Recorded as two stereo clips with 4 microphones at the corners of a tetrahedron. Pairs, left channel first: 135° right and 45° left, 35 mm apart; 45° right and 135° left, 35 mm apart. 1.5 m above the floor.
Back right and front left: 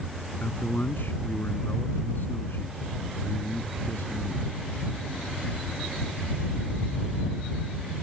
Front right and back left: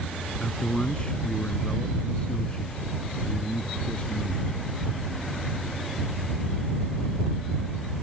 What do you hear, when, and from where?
0.4 s a man speaking: 105° right; by 4.6 s 110° right